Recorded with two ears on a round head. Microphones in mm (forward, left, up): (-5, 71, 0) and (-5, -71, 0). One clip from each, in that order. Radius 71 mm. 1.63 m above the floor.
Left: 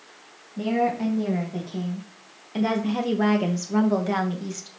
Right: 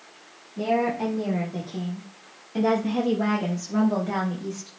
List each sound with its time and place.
0.6 s a woman speaking: 5° right (ahead or behind), 2 m; by 4.7 s 85° left, 1.7 m